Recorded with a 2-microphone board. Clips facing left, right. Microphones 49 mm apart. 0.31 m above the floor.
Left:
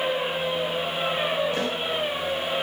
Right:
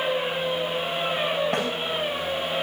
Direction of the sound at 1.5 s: 85° right.